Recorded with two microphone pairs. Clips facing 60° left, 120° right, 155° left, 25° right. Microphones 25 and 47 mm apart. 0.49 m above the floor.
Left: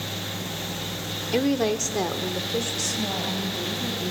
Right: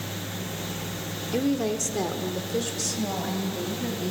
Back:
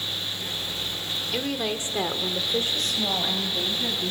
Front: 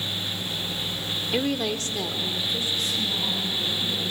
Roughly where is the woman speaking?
Ahead left.